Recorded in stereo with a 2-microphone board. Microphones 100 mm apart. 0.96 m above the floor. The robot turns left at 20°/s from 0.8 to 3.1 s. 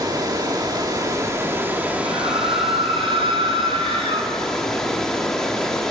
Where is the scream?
80° right, 3 m; by 4.3 s 70° right (ahead or behind), 3 m.